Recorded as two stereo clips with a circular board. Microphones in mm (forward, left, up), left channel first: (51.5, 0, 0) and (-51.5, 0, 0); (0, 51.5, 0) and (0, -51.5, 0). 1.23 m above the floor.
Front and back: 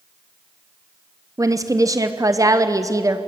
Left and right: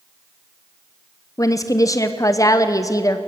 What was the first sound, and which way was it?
A woman speaking, 135° left.